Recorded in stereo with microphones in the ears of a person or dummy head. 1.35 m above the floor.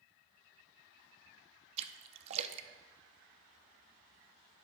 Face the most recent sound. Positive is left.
turn(degrees=-35)  # may be behind; listen again after turning